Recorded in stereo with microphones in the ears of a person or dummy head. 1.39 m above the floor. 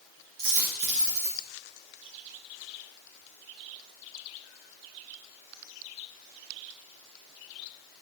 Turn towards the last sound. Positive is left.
turn(degrees=-60)  # may be behind; listen again after turning